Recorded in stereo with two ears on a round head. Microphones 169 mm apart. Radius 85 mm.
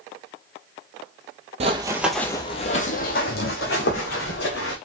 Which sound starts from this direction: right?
Running footsteps, at 1.6 s.